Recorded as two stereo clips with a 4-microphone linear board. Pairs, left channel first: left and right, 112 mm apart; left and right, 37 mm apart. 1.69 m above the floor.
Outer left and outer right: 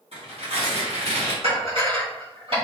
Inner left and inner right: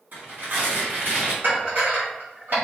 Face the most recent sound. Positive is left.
turn(degrees=-55)  # may be behind; listen again after turning